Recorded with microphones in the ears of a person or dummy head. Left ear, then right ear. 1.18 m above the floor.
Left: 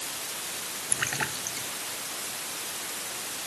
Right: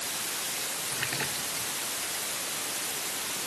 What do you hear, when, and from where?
0.9 s a splash: 45° left (ahead or behind)